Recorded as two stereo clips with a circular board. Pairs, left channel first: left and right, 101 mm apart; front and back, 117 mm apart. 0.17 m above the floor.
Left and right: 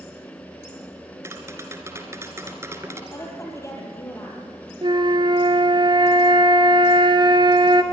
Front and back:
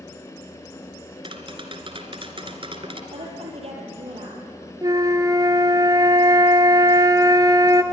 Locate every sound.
1.2 s tapping: 150° right, 2 m
3.1 s a woman speaking: 150° left, 6 m
4.8 s a flute: 125° right, 1.4 m